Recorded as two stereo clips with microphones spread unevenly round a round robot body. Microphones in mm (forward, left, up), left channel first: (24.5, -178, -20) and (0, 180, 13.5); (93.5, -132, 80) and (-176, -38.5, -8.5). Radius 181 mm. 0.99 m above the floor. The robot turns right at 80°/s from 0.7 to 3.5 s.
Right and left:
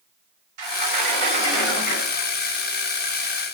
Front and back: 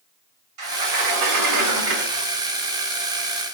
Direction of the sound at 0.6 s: 115° left.